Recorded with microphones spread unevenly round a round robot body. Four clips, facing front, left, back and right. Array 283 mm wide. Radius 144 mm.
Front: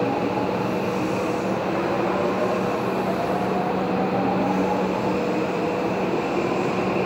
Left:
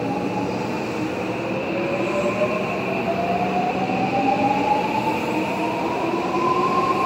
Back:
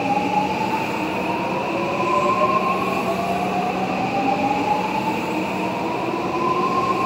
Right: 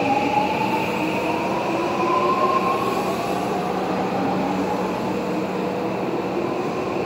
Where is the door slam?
I don't hear a door slam.